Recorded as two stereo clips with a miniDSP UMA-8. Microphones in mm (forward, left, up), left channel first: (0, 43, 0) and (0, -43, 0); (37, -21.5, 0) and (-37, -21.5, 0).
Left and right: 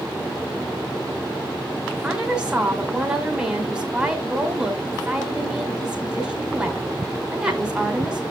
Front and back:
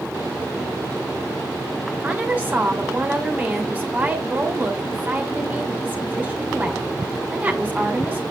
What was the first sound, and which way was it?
A woman speaking, 155° right.